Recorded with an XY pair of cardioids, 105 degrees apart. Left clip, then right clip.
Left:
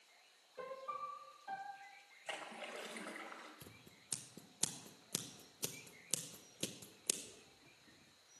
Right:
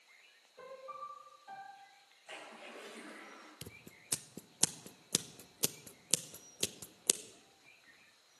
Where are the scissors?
50° right, 0.7 m.